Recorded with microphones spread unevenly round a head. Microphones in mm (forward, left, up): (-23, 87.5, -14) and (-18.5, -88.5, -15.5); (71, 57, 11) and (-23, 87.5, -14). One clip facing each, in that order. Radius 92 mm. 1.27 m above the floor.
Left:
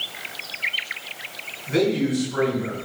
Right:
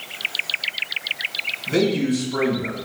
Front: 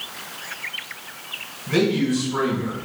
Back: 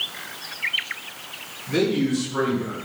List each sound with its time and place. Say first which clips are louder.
1.7 s a man speaking: right 1 dB, front 1 dB; 40° right, 5.5 m